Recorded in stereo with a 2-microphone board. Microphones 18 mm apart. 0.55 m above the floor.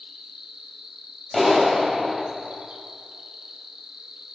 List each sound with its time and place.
0.0 s an insect: 40° right (ahead or behind), 0.8 m
1.3 s a clap: 5° left (ahead or behind), 2.5 m